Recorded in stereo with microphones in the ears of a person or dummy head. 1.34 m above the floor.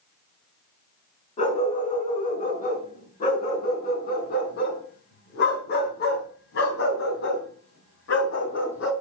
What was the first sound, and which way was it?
A dog barking, 40° left (ahead or behind).